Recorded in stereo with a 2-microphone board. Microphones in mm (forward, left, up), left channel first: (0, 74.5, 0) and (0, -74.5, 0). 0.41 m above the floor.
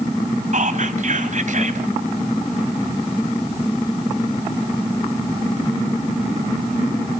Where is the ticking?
I don't hear ticking.